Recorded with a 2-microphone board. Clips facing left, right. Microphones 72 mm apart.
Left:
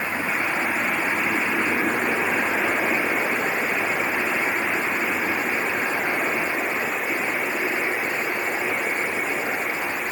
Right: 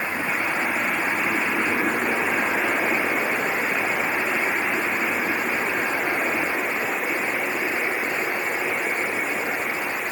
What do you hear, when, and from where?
Only background noise.